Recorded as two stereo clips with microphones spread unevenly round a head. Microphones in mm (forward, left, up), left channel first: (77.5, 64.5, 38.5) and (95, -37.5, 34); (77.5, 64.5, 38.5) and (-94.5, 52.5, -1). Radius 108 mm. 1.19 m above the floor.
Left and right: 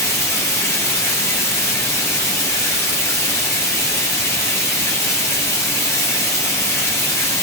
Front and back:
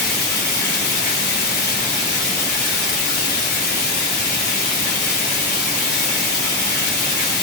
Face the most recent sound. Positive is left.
turn(degrees=35)